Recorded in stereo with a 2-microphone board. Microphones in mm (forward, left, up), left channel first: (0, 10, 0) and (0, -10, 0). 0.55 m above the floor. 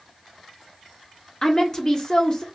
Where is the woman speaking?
35° left (ahead or behind), 0.8 m.